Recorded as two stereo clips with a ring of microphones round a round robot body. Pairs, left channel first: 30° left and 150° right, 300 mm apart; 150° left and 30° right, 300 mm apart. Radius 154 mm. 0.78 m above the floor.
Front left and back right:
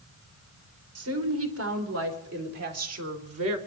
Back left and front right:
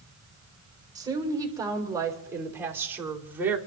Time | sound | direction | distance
0.9 | a woman speaking | 110° right | 4 m